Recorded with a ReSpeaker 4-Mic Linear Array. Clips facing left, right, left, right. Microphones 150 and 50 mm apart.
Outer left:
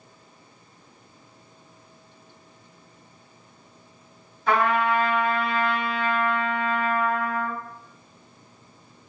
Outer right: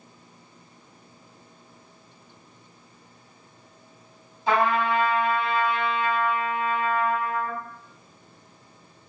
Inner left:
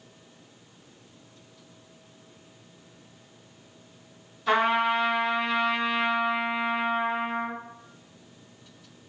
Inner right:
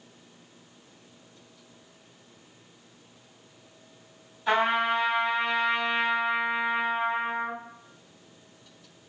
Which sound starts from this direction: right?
A trumpet, at 4.5 s.